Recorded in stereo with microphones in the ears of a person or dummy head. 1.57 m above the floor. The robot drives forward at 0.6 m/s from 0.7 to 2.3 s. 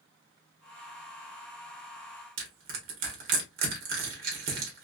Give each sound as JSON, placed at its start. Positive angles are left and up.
{"t": 2.4, "sound": "crushing", "side_deg": -45, "distance_m": 1.5}